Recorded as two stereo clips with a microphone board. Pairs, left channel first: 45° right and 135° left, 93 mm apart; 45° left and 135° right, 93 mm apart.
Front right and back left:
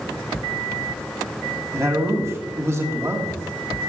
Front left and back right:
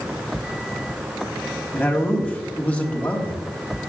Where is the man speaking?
110° left, 1.5 m.